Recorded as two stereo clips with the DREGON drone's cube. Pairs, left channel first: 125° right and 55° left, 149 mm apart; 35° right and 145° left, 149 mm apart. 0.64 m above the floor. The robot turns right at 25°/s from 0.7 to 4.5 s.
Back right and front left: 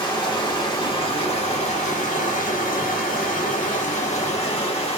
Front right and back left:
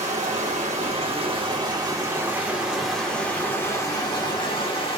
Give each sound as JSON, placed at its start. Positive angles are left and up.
{"t": 0.0, "sound": "running water", "azimuth_deg": 180, "distance_m": 1.1}